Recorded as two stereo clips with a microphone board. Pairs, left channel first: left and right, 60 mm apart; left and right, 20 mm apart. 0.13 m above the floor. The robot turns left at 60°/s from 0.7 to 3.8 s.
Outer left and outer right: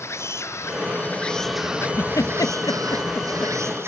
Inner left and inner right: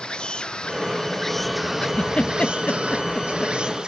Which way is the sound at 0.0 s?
50° left.